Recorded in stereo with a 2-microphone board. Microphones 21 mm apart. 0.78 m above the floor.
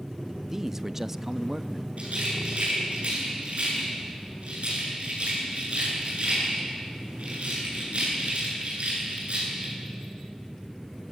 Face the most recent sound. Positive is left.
turn(degrees=-65)  # may be behind; listen again after turning